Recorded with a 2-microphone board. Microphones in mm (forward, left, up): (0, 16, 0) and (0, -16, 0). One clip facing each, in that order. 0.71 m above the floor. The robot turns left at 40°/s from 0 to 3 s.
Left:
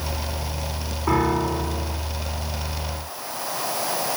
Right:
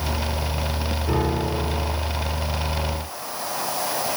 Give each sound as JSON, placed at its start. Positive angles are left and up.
{"t": 1.1, "sound": "a piano", "azimuth_deg": 85, "distance_m": 2.0}